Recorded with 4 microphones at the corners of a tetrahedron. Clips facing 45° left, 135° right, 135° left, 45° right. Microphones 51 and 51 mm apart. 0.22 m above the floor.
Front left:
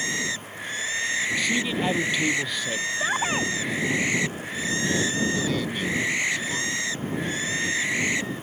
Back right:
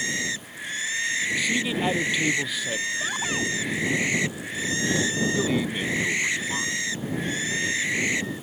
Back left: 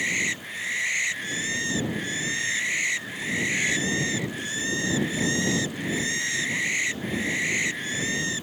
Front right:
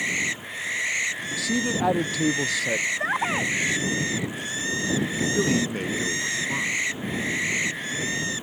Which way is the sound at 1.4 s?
50° right.